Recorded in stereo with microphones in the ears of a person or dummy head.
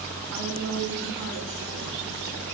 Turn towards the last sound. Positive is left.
turn(degrees=-75)  # may be behind; listen again after turning